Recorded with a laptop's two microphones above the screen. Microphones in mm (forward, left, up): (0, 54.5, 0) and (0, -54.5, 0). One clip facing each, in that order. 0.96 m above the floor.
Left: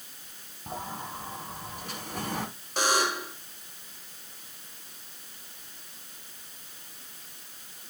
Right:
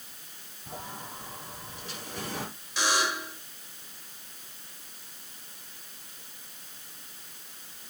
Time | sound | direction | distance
0.7 | a sliding door | 50° left (ahead or behind) | 3.5 m
2.8 | a buzzer | 50° left (ahead or behind) | 2.5 m